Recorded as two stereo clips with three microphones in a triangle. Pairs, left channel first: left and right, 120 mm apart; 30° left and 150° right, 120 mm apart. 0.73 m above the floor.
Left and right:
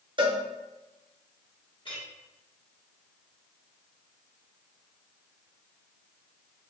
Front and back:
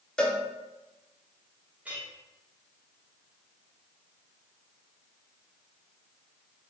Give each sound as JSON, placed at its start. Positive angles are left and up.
{"t": 0.2, "sound": "a cowbell", "azimuth_deg": -50, "distance_m": 0.5}
{"t": 1.9, "sound": "a clink", "azimuth_deg": 135, "distance_m": 1.3}